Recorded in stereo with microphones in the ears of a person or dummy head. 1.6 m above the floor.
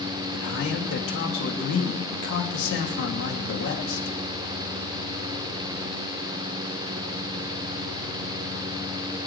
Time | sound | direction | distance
0.3 | a man speaking | 85° left | 2.5 m